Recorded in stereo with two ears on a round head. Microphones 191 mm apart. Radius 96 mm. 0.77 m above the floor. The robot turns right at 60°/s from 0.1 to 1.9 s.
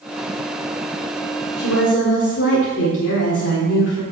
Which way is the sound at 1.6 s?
75° left (ahead or behind).